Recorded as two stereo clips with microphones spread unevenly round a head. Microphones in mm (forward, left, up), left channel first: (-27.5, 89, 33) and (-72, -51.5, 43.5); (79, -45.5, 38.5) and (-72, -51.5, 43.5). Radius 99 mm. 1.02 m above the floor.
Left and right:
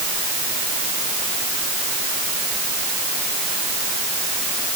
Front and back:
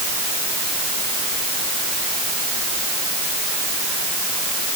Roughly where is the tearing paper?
I don't hear tearing paper.